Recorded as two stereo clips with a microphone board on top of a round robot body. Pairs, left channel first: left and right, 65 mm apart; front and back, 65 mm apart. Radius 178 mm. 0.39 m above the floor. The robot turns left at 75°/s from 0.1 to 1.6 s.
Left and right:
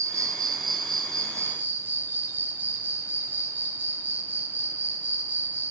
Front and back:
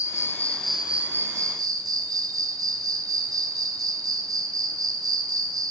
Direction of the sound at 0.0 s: 45° right.